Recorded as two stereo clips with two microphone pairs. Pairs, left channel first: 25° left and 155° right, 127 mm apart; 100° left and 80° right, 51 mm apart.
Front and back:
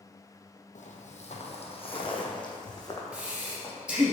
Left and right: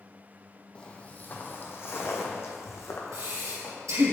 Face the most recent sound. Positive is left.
turn(degrees=-75)